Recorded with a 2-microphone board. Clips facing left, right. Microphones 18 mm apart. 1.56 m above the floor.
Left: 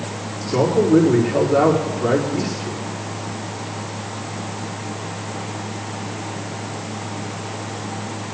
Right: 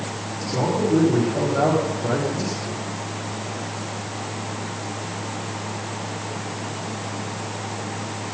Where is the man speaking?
90° left, 4.5 m.